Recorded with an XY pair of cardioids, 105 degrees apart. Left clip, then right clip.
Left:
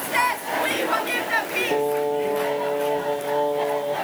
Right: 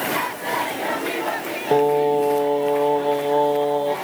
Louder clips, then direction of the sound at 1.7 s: Right 8 dB; 45° right.